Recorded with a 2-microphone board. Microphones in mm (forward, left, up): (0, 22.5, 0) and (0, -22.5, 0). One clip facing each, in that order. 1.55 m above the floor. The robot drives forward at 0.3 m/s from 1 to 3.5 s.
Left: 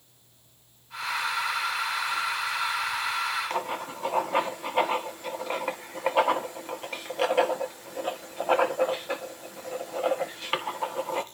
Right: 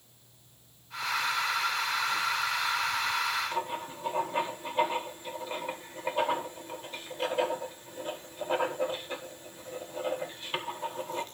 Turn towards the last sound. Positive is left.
turn(degrees=75)  # may be behind; listen again after turning